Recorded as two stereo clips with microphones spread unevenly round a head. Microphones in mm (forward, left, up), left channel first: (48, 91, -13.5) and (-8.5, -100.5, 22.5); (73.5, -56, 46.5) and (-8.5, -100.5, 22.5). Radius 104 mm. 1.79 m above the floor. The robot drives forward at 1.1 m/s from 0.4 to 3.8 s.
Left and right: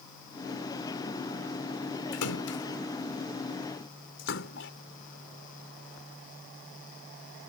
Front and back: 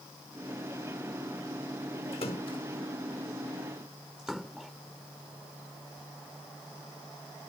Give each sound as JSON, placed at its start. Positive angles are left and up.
{"t": 2.1, "sound": "a splash", "azimuth_deg": 65}